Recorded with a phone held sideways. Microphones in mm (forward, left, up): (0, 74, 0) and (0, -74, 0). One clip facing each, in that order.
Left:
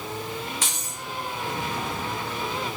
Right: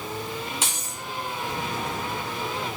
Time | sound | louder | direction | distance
0.6 | keys jangling | right 1 dB | 25° right (ahead or behind) | 2.5 m